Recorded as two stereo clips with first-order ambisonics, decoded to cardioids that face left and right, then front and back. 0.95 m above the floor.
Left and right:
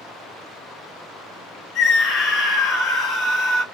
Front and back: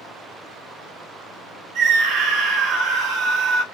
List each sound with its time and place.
1.8 s a scream: 145° left, 1.3 m